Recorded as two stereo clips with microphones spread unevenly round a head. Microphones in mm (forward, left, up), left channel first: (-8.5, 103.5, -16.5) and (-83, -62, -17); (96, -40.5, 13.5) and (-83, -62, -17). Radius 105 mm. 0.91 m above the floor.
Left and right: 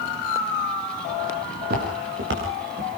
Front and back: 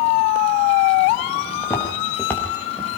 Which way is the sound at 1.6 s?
70° right.